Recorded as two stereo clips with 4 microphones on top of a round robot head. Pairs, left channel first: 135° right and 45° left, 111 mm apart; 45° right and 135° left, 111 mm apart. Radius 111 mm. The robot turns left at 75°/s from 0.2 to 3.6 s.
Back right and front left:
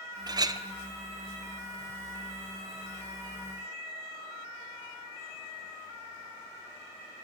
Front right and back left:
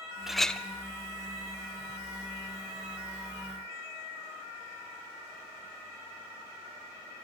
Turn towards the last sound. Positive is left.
turn(degrees=160)